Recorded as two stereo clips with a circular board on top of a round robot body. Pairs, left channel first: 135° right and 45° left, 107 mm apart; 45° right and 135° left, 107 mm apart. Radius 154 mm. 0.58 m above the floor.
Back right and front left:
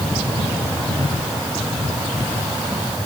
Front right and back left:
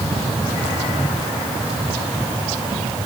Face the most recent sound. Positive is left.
No sound to turn to.